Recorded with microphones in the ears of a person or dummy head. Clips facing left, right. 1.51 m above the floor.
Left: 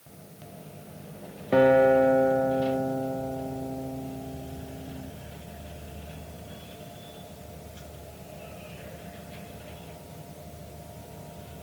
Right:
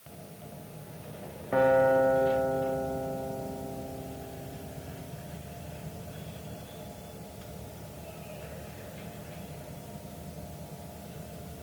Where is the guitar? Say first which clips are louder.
Left 4 dB; 30° left (ahead or behind), 0.5 m.